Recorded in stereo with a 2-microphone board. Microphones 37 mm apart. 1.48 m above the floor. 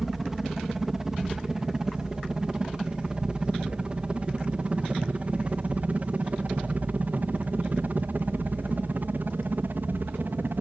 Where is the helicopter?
10° right (ahead or behind); by 10.6 s 60° right (ahead or behind).